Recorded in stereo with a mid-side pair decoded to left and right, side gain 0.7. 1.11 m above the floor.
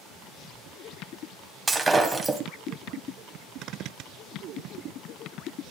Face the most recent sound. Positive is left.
turn(degrees=-5)